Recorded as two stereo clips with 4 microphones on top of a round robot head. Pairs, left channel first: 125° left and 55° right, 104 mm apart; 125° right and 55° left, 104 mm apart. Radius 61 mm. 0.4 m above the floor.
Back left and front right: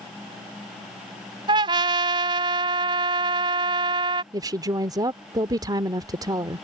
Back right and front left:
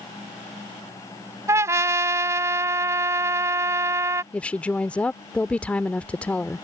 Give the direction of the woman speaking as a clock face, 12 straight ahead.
2 o'clock.